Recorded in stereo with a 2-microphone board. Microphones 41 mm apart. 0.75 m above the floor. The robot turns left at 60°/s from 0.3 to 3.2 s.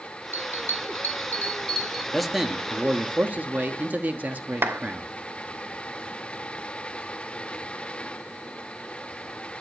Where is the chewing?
No chewing in this recording.